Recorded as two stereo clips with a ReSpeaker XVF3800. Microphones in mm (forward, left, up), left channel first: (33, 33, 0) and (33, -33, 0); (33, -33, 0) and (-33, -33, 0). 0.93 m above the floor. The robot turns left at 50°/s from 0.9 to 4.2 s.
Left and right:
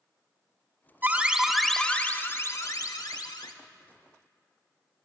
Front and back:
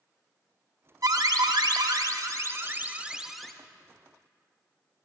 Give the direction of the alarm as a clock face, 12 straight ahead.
5 o'clock.